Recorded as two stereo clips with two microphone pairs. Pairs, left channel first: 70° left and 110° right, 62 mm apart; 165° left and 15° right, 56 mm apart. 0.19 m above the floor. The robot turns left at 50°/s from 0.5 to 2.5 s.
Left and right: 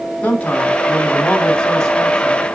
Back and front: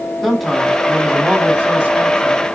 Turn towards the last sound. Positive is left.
turn(degrees=-30)